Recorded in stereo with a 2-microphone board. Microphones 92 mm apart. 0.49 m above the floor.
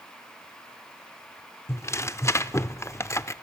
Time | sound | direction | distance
1.7 | tearing paper | 30° left (ahead or behind) | 0.6 m